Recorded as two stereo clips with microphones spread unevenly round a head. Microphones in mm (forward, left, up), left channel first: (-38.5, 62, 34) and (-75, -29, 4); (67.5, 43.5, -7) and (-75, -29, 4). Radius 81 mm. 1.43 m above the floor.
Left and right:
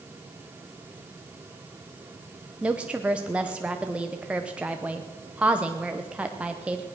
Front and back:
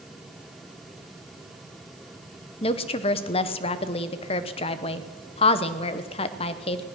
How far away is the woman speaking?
About 0.8 m.